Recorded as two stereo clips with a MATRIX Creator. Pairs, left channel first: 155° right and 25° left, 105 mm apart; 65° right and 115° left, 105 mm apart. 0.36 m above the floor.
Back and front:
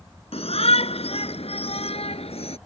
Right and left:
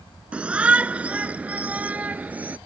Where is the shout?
170° right.